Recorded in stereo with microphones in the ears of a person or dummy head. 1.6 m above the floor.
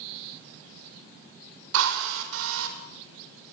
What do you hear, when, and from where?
1.7 s a drill: 75° right (ahead or behind), 4.5 m